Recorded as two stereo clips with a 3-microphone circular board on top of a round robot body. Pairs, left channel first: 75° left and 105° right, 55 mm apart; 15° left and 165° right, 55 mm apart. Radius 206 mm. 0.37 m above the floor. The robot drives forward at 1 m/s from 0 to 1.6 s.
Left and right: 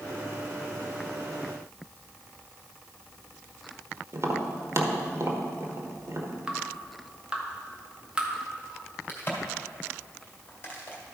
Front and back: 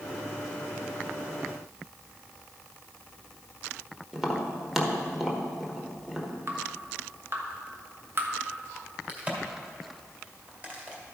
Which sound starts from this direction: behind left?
A crack, at 9.1 s.